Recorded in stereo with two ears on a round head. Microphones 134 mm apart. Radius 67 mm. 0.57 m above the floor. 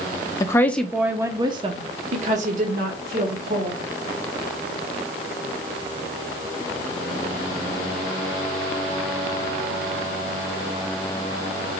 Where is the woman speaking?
25° left (ahead or behind), 0.6 m; by 3.8 s 65° right (ahead or behind), 1.6 m.